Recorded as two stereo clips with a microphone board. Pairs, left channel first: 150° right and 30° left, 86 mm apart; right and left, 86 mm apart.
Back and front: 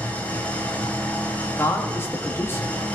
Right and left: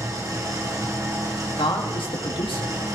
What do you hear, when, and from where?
0.0 s an engine running: 135° left, 2.5 m
1.6 s a man speaking: 90° right, 3 m